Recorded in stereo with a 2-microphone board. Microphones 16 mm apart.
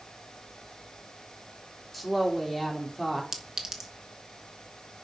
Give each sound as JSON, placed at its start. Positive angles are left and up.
{"t": 1.9, "sound": "a woman speaking", "side_deg": -10, "distance_m": 3.0}
{"t": 3.3, "sound": "a clink", "side_deg": -25, "distance_m": 1.5}